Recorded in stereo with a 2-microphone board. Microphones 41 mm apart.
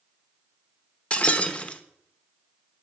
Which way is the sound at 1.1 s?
30° left (ahead or behind).